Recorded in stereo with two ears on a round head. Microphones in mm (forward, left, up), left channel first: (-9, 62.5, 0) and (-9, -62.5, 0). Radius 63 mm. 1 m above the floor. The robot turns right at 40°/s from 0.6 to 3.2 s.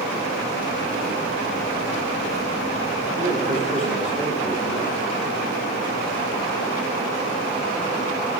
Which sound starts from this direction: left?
A man speaking, at 3.2 s.